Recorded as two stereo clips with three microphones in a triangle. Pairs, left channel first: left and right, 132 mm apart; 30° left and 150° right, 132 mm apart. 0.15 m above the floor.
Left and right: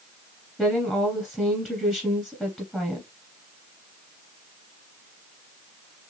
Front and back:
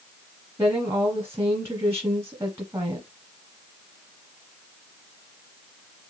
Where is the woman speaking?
165° left, 1.2 m.